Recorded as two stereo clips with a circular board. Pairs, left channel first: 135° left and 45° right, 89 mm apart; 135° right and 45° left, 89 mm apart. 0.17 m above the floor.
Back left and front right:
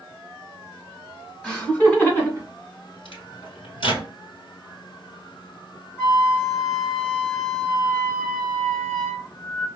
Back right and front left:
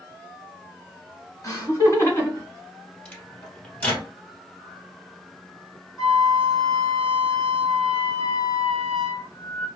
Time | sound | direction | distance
1.4 | laughter | 155° right | 1.7 m
3.0 | a microwave | 150° left | 2.5 m
6.0 | a flute | 175° left | 2.5 m